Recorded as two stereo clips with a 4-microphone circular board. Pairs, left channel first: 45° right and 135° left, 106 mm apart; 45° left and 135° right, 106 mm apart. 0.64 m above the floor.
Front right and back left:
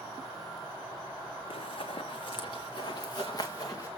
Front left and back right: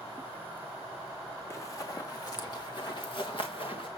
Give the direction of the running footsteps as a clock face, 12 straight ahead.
1 o'clock.